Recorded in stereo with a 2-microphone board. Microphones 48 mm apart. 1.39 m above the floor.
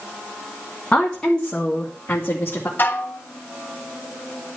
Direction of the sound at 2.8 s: 45° left (ahead or behind).